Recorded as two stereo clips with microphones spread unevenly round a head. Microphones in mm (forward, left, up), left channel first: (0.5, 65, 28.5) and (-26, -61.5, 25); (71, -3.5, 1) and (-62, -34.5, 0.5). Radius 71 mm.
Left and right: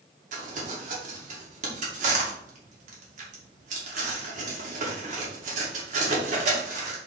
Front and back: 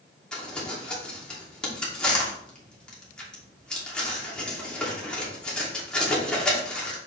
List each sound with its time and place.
0.3 s crumpling: 70° right, 2.5 m